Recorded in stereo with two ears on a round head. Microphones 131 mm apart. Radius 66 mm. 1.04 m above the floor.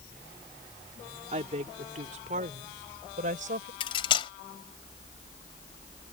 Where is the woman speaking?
50° right (ahead or behind); by 3.7 s 60° right (ahead or behind).